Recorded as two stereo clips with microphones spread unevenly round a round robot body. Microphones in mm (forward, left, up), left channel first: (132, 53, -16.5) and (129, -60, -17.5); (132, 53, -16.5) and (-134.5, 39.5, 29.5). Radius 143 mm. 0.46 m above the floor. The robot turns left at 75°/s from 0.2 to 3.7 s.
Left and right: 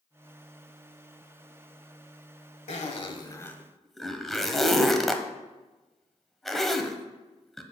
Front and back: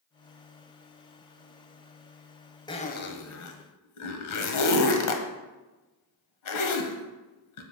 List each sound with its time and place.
2.7 s a zipper: 75° left, 1.2 m; by 7.6 s straight ahead, 1.2 m